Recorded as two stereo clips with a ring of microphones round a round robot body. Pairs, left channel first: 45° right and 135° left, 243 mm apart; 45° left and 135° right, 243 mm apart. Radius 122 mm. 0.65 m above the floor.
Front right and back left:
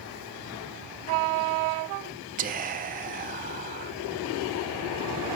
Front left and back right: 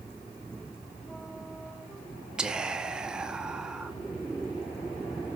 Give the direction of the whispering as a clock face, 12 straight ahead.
7 o'clock.